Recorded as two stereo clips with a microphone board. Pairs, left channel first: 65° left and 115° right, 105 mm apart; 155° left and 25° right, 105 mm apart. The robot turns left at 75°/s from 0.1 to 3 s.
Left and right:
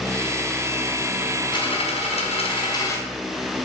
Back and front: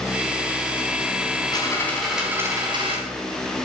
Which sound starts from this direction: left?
A dropped coin, at 1.5 s.